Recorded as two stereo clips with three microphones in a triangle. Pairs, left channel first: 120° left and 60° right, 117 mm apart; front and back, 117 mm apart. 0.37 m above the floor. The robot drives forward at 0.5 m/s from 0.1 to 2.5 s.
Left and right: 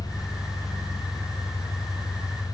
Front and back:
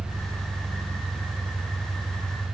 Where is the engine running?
160° left, 6 m.